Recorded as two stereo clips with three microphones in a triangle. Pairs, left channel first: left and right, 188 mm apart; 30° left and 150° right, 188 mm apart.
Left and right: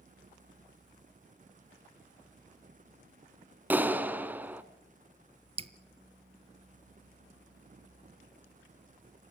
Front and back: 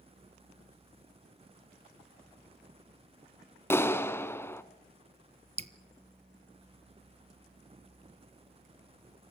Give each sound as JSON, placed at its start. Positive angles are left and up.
{"t": 3.7, "sound": "a clap", "azimuth_deg": -25, "distance_m": 0.8}
{"t": 5.6, "sound": "dripping", "azimuth_deg": -125, "distance_m": 0.6}